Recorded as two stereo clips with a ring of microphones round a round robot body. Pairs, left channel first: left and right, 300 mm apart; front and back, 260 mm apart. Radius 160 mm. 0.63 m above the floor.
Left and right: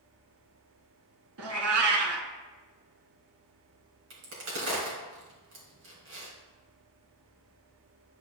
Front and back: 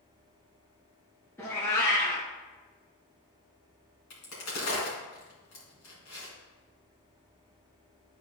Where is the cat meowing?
80° right, 0.7 m.